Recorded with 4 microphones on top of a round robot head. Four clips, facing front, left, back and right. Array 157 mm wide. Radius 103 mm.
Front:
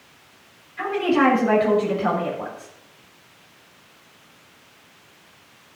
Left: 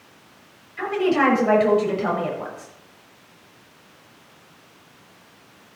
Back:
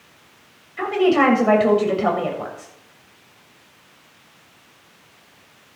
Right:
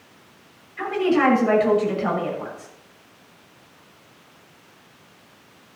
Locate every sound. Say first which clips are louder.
0.8 s a woman speaking: even, back 3 dB; 170° left, 7 m